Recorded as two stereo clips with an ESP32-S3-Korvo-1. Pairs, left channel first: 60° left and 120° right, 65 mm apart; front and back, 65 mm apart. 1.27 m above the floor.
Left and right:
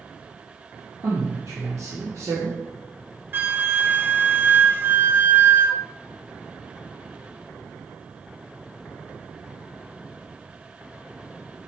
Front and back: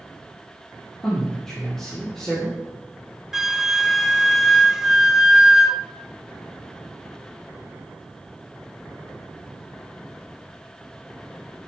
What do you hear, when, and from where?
1.0 s a man speaking: 85° right, 2.5 m
3.3 s a flute: 105° right, 0.6 m